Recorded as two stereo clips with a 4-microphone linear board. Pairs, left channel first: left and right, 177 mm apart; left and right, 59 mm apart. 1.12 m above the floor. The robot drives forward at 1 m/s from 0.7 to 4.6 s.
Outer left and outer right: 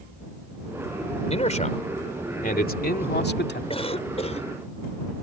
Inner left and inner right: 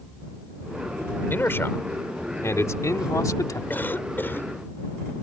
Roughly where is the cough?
Left.